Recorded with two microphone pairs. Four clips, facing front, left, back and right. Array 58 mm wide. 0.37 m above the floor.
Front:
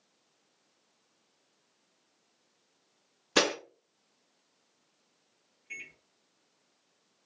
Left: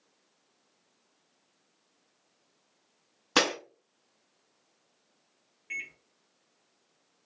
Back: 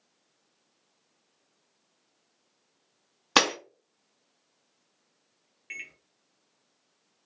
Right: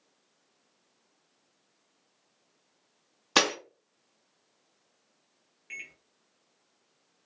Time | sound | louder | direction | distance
3.4 | breaking glass | right 1 dB, back 3 dB | 170° right | 1.1 m
5.7 | a microwave | left 5 dB, back 3 dB | straight behind | 0.9 m